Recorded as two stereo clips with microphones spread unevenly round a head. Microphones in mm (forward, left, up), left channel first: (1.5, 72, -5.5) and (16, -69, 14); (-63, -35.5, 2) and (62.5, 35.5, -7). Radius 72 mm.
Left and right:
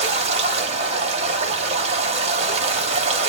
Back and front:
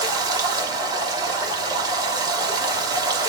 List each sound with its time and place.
0.0 s running water: 35° right, 1.1 m